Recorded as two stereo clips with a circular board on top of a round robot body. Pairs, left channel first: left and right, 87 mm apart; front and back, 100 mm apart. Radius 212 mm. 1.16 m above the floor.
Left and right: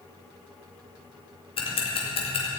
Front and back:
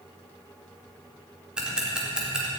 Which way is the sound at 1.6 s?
100° left.